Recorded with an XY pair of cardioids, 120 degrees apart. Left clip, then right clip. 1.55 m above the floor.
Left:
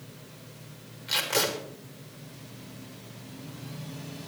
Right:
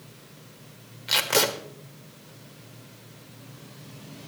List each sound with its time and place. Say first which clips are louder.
1.1 s tape being pulled: right 4 dB; 45° right, 1.7 m